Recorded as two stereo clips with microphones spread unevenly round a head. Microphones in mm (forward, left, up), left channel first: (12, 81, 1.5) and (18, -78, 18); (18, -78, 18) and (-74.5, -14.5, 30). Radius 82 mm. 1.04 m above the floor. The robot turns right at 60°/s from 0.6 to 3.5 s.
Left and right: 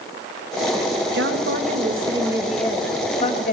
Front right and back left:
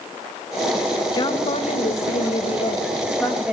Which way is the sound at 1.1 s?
80° right.